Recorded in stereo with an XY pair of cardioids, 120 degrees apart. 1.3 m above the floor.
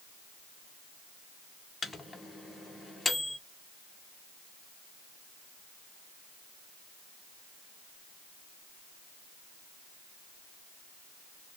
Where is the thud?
I don't hear a thud.